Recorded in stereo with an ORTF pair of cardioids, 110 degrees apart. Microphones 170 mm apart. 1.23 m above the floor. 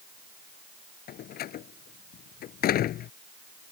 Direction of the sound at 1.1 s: 65° left.